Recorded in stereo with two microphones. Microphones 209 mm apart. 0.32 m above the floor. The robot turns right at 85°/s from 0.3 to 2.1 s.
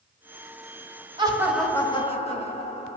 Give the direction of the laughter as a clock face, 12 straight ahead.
1 o'clock.